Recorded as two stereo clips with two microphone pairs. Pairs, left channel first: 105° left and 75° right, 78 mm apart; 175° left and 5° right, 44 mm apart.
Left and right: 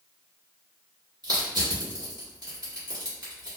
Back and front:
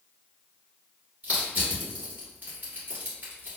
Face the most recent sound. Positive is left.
turn(degrees=-50)